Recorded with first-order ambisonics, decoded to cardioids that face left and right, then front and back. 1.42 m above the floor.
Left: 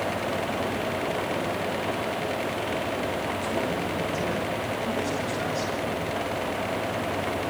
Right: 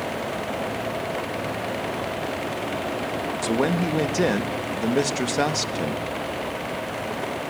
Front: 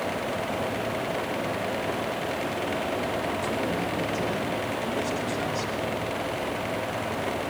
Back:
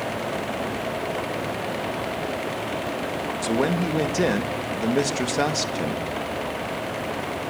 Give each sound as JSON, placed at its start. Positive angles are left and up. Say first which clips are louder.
{"t": 3.4, "sound": "a man speaking", "louder": "right 4 dB, back 4 dB", "azimuth_deg": -135, "distance_m": 1.7}